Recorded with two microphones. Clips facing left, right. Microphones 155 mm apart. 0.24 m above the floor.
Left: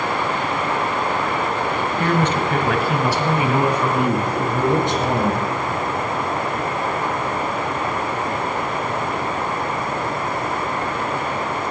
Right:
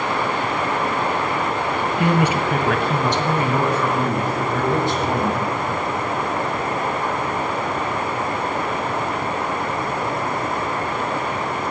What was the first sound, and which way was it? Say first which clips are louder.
A man speaking: right 1 dB; 20° right (ahead or behind).